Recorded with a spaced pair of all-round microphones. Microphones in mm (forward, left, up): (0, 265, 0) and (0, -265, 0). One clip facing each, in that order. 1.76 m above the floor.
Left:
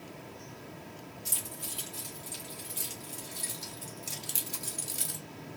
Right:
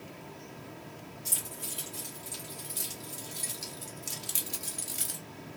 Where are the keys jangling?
70° right (ahead or behind), 2.5 m; by 5.2 s 5° left (ahead or behind), 0.9 m.